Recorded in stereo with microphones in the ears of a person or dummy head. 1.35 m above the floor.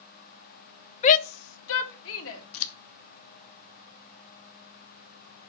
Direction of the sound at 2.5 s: 80° left.